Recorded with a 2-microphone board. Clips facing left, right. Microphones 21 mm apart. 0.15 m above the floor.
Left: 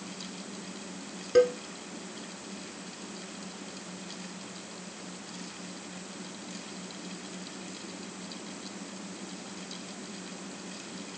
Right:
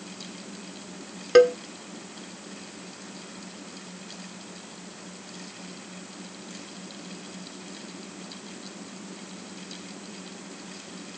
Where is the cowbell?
45° right (ahead or behind), 0.5 m.